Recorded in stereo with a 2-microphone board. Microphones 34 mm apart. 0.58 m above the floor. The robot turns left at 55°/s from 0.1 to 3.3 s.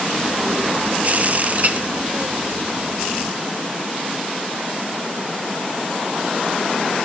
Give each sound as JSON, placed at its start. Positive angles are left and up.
{"t": 1.6, "sound": "a clink", "side_deg": -55, "distance_m": 1.0}